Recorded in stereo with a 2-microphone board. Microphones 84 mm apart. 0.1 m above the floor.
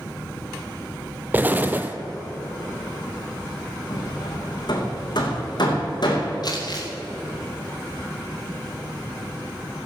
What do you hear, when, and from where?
1.3 s an explosion: 20° right (ahead or behind), 0.7 m
3.9 s hammering: 60° left (ahead or behind), 3 m
6.4 s crumpling: 55° left (ahead or behind), 3 m